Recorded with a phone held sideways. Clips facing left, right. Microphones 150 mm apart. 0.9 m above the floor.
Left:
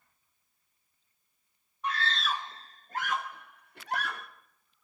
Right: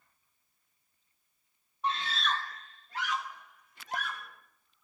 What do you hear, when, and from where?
1.8 s a scream: 30° right (ahead or behind), 0.7 m; by 4.3 s 70° left (ahead or behind), 2.5 m